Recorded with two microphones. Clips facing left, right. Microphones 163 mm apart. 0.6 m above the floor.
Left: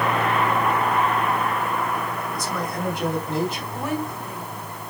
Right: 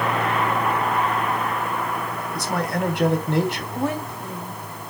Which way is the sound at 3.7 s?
30° right (ahead or behind).